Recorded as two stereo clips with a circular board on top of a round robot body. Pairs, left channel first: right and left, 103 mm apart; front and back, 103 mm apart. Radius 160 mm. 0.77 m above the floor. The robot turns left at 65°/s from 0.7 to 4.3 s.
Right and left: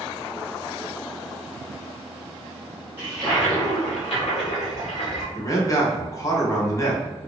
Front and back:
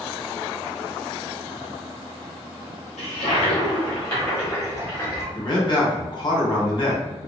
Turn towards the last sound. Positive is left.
turn(degrees=-35)